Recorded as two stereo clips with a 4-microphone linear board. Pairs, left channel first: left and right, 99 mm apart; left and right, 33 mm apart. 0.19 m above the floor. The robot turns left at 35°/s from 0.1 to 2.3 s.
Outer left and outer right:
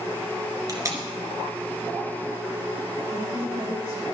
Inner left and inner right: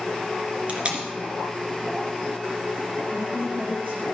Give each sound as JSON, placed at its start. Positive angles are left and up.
{"t": 0.7, "sound": "tape being pulled", "side_deg": -40, "distance_m": 2.5}
{"t": 3.1, "sound": "a woman speaking", "side_deg": -75, "distance_m": 4.0}